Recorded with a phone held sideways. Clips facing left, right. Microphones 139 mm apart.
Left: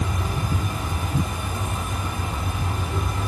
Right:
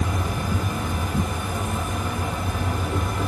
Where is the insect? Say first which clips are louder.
Right 1 dB; 55° right (ahead or behind), 1.9 m.